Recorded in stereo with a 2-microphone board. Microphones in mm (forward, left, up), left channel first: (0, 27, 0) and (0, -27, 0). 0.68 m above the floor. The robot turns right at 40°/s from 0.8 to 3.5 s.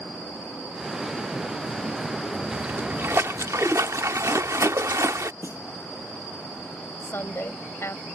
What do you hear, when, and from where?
2.5 s a splash: 155° right; by 5.3 s 115° right
5.4 s a snare drum: 55° right (ahead or behind)
7.0 s a woman speaking: 50° left (ahead or behind)